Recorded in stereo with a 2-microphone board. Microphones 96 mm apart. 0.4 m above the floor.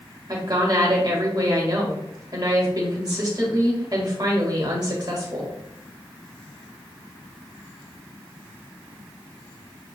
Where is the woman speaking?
45° right (ahead or behind), 1.8 m.